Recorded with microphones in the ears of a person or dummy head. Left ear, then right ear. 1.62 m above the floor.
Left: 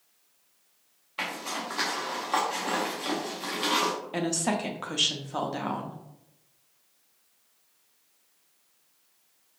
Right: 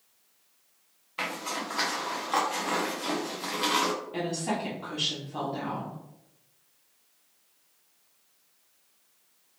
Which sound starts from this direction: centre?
A zipper, at 1.2 s.